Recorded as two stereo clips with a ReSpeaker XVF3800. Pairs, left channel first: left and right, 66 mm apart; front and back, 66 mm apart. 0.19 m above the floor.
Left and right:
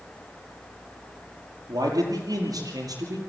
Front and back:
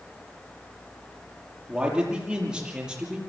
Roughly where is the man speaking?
Right.